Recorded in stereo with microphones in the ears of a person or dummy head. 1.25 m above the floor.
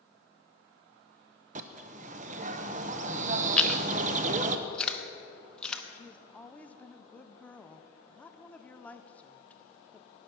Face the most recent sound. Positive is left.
turn(degrees=10)  # may be behind; listen again after turning